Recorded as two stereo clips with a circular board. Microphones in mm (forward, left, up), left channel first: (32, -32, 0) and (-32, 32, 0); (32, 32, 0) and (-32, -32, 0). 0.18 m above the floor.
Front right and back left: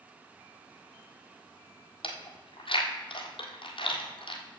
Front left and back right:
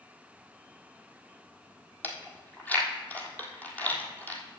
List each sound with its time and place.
2.0 s chewing: 25° right, 1.4 m